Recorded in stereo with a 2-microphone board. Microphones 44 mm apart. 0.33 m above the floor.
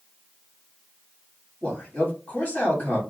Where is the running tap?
I don't hear a running tap.